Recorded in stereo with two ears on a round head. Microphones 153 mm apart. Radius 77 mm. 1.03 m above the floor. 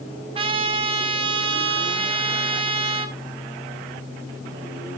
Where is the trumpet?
30° right (ahead or behind), 0.9 m.